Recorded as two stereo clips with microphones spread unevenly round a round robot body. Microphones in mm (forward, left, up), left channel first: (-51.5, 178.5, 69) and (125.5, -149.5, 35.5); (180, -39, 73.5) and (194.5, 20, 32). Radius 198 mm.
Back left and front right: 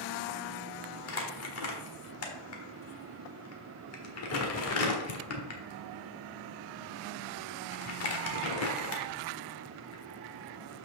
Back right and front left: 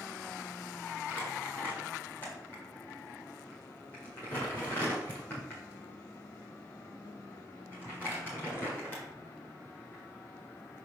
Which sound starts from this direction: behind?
Crumpling, at 1.1 s.